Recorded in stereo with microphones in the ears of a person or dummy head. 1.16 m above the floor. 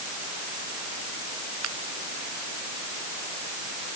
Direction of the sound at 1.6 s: 90° right.